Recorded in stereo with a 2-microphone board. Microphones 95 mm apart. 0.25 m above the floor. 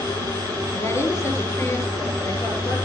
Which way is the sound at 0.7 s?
30° left (ahead or behind).